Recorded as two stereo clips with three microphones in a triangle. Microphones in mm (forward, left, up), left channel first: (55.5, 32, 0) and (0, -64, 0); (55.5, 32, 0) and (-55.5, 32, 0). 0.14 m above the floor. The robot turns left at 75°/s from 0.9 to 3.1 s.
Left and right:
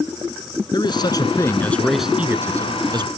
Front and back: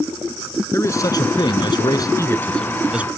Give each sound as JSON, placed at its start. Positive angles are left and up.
{"t": 0.7, "sound": "a man speaking", "azimuth_deg": 50}